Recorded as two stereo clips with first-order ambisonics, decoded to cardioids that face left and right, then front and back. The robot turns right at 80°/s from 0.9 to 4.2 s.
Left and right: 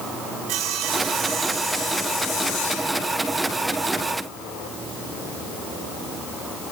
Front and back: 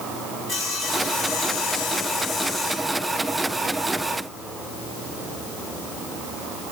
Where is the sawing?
60° right, 3.5 m; by 3.2 s 130° left, 3.5 m.